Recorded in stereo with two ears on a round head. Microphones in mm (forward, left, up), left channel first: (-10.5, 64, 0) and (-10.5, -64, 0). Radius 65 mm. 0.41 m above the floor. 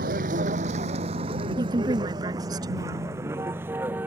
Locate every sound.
0.0 s a vehicle: 60° right (ahead or behind); by 4.1 s 15° right (ahead or behind)
1.6 s a woman speaking: 25° right (ahead or behind)